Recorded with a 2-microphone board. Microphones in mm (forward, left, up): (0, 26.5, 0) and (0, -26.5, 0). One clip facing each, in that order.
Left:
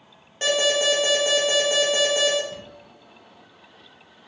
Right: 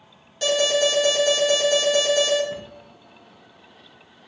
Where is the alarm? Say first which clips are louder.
Right 1 dB; 35° left (ahead or behind), 2 m.